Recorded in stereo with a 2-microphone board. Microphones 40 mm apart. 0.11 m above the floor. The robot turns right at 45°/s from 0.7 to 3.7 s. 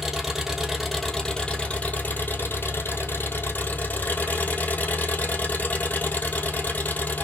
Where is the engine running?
10° right, 1.4 m; by 7.2 s 125° left, 1.4 m.